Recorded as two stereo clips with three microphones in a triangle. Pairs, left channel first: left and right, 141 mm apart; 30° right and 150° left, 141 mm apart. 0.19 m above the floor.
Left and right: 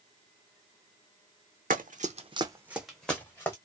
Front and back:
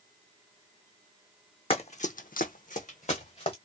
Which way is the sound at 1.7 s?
80° right.